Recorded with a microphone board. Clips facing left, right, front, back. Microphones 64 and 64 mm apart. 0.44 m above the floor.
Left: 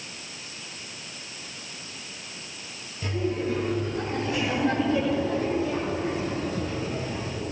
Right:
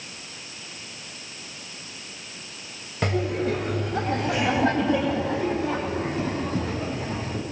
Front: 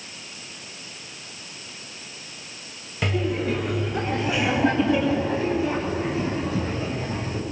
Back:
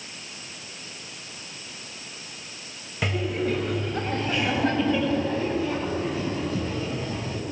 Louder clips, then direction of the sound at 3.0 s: Right 3 dB, front 2 dB; 95° right.